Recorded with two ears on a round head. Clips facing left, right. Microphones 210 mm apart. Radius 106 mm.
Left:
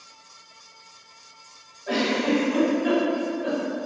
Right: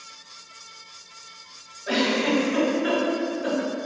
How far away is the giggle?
About 1.1 m.